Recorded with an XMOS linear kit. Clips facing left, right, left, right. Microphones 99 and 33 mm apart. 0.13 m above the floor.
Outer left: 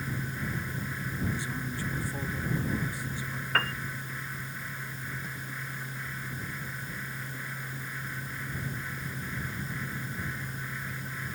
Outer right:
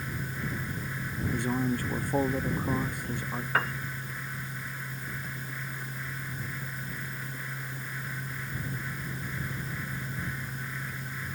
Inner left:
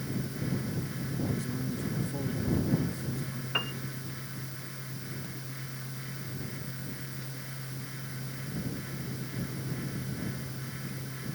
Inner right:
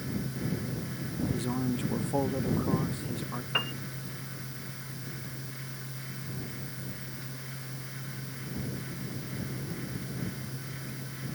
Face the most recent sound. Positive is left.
turn(degrees=-10)  # may be behind; listen again after turning